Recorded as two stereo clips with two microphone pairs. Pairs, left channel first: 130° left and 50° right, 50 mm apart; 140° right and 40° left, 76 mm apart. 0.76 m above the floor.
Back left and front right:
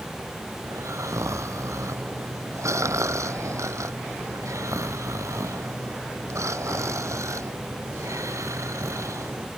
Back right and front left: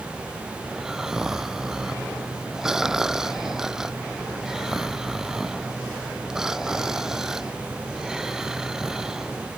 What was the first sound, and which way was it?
Snoring, 45° right.